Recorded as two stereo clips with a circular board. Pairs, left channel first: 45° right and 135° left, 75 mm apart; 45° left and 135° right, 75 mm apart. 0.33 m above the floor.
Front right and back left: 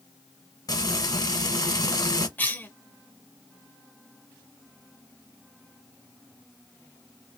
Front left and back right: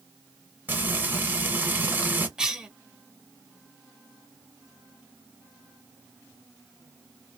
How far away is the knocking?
I don't hear knocking.